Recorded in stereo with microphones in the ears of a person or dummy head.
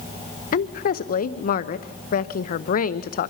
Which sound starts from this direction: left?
A woman speaking, at 0.5 s.